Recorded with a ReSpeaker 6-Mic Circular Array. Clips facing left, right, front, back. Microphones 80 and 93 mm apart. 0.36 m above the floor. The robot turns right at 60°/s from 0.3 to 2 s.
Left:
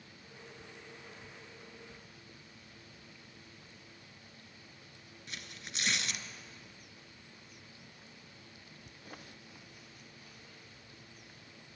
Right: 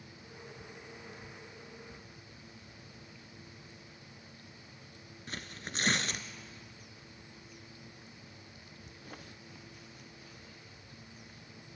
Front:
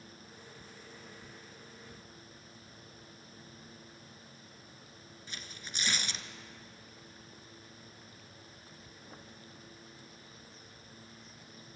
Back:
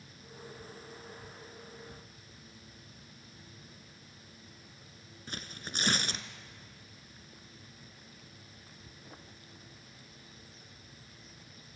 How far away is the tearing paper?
About 1.0 m.